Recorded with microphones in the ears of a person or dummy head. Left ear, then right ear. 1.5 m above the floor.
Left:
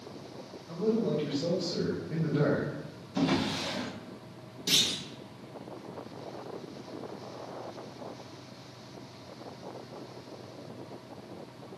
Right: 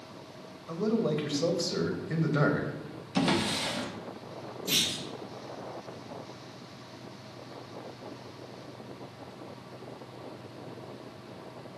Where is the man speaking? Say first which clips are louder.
Even; 60° right (ahead or behind), 0.8 m.